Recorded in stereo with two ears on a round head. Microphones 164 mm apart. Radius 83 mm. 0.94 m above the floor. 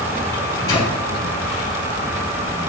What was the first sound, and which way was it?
A microwave, 20° left (ahead or behind).